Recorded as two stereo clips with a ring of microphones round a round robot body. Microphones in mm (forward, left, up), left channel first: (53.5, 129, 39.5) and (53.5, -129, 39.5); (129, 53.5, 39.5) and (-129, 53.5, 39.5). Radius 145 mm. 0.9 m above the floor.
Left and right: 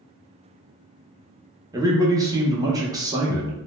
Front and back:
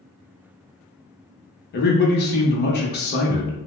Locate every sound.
1.7 s a man speaking: 20° right, 0.8 m